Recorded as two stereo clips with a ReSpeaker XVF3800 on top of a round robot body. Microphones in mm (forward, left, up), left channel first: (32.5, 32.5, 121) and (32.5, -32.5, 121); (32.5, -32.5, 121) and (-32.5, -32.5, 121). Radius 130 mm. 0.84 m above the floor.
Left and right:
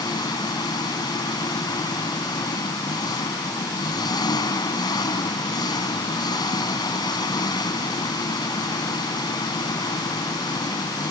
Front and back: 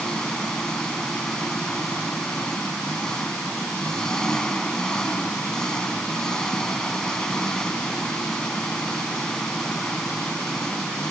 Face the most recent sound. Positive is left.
turn(degrees=80)